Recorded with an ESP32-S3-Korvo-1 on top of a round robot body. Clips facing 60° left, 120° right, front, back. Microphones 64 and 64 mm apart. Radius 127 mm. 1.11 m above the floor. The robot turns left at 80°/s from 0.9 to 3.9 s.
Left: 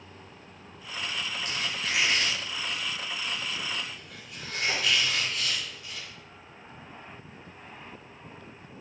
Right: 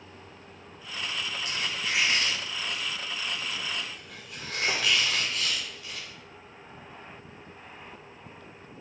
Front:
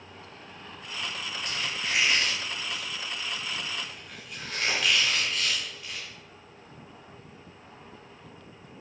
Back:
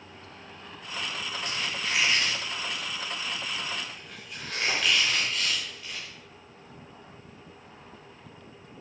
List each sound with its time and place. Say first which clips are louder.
1.4 s a squeak: right 1 dB, even; 105° left, 0.5 m; by 6.1 s 90° right, 0.5 m